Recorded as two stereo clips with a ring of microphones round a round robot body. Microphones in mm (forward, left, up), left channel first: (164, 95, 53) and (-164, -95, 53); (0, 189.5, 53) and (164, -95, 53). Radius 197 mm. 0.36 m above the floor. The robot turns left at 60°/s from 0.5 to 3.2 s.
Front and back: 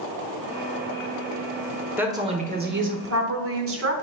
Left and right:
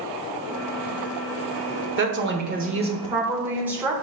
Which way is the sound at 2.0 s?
65° right.